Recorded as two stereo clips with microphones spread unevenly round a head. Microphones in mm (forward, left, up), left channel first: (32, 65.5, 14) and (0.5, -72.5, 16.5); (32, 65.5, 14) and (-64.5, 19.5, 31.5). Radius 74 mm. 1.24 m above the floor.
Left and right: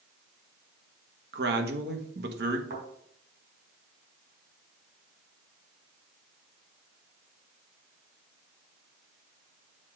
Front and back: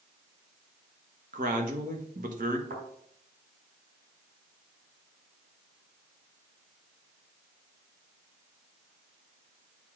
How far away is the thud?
About 4.5 m.